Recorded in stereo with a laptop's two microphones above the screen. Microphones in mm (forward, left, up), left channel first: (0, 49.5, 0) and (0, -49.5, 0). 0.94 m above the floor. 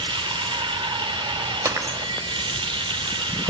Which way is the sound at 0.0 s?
65° right (ahead or behind).